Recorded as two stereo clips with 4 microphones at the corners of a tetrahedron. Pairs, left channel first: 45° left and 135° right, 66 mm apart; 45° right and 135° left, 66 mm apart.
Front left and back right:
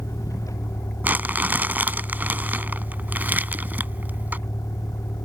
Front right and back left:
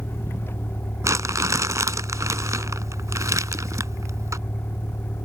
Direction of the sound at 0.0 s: 10° left.